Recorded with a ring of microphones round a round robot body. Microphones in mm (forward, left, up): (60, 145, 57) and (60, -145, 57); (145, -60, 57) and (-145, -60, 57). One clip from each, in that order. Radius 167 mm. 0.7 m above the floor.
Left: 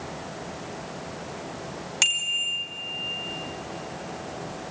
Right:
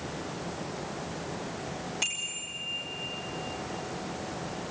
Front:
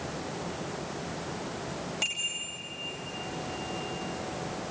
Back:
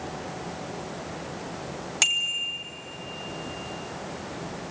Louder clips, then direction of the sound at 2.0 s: Left 11 dB, back 8 dB; 135° left.